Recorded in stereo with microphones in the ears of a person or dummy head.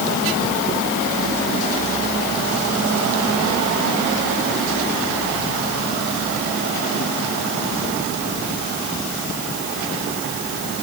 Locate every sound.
Only background noise.